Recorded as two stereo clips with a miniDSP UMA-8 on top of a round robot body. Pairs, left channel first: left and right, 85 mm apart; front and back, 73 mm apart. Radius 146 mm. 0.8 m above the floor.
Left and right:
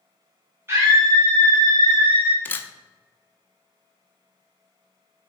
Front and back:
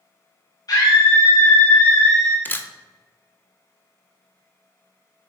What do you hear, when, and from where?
0.7 s a scream: 30° right, 1.4 m; by 2.4 s 100° right, 1.1 m
2.5 s a camera shutter: 40° left, 0.7 m